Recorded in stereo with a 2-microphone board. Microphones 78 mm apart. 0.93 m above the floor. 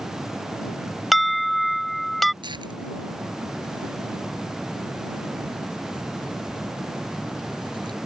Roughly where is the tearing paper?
Right.